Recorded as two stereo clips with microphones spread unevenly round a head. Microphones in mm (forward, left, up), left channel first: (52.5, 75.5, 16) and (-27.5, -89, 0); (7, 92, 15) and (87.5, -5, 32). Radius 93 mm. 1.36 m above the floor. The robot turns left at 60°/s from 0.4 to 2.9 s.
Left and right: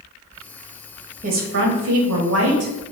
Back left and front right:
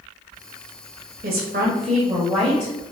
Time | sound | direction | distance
1.2 | a woman speaking | 70° right | 0.8 m